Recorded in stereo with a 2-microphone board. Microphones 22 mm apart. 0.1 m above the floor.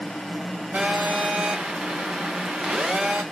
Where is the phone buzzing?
65° right (ahead or behind), 1.9 m.